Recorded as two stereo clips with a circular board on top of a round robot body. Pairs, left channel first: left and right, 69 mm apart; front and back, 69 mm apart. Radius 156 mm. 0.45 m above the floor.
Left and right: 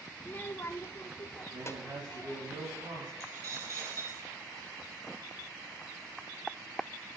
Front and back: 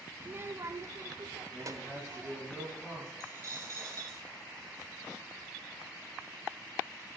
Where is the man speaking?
80° right, 5.5 m.